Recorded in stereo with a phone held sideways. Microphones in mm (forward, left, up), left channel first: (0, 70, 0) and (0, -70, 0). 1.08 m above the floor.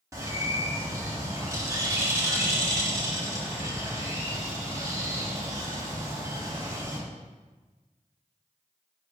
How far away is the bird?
About 0.8 m.